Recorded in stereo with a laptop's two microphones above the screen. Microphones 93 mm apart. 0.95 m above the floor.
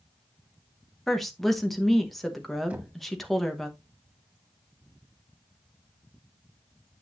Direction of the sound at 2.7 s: 15° right (ahead or behind).